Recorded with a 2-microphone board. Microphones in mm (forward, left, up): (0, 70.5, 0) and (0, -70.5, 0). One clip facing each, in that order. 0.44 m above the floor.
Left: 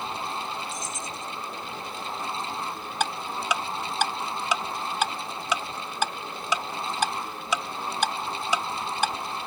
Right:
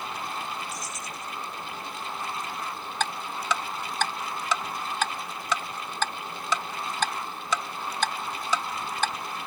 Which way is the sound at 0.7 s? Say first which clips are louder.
Left 2 dB; 50° left (ahead or behind).